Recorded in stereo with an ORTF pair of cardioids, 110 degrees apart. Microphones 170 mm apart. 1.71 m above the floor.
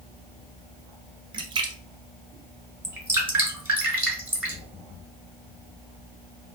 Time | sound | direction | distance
1.3 | a splash | 30° right | 0.5 m
2.8 | dripping | 10° right | 1.5 m